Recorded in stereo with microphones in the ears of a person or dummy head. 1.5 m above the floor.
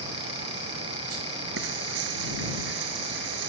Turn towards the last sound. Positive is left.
turn(degrees=-80)